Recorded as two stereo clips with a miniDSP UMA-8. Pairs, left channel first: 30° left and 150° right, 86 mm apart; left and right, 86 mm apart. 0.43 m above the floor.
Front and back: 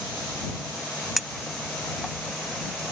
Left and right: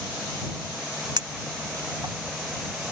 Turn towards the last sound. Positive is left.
turn(degrees=-60)